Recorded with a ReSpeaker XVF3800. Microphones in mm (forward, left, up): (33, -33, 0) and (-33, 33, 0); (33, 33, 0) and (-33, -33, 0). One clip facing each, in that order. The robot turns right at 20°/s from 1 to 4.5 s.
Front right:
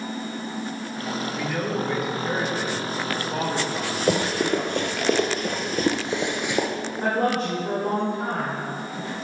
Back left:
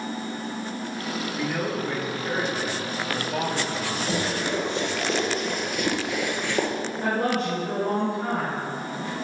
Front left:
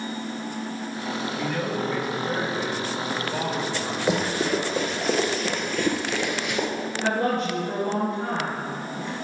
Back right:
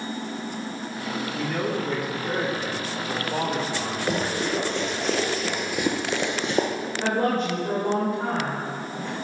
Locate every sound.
1.3 s a man speaking: 145° right, 2.0 m; by 5.1 s 85° right, 2.0 m
4.1 s running footsteps: 35° right, 1.7 m; by 6.7 s 120° right, 0.9 m
7.0 s a woman speaking: 85° right, 2.5 m